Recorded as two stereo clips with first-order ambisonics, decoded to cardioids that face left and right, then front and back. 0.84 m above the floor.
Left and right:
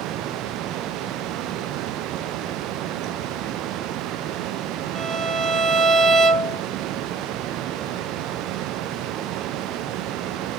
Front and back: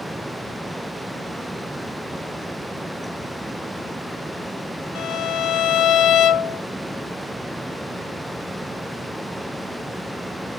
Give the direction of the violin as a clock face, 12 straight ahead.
1 o'clock.